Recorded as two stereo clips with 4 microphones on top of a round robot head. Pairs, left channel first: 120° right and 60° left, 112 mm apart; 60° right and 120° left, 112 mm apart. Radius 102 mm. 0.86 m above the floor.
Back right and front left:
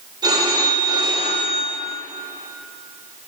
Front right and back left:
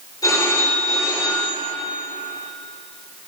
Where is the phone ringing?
Straight ahead, 2.5 m.